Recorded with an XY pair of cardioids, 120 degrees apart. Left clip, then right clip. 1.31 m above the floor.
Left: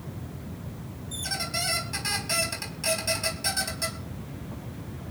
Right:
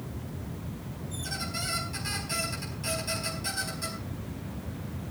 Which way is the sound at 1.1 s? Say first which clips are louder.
Left 5 dB; 50° left.